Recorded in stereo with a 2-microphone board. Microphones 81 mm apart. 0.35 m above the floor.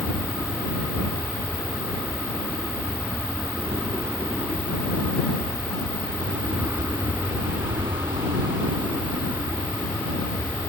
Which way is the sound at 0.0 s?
40° right (ahead or behind).